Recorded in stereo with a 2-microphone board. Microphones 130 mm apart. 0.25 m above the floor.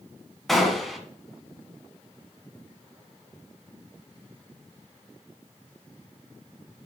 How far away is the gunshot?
About 1.4 m.